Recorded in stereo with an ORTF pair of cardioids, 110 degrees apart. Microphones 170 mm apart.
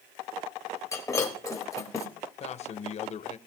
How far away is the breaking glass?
About 3.5 m.